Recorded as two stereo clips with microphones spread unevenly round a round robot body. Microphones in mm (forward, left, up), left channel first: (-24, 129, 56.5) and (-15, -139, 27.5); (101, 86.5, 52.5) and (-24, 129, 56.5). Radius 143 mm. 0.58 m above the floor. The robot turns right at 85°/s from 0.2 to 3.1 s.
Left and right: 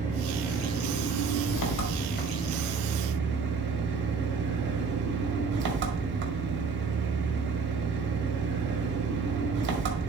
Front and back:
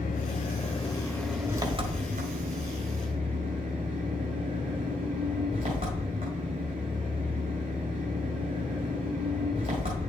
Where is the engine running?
25° right, 1.7 m; by 10.1 s 135° right, 1.7 m.